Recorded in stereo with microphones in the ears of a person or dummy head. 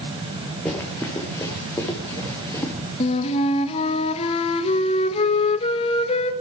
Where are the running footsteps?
10° left (ahead or behind), 5 m; by 2.7 s 20° left (ahead or behind), 7 m.